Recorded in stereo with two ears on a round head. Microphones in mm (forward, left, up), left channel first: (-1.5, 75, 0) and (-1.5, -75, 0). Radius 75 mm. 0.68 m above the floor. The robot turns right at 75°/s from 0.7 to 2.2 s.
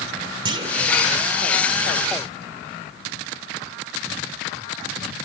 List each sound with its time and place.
0.5 s a clunk: 30° right (ahead or behind), 2.5 m; by 0.9 s 20° right (ahead or behind), 2.5 m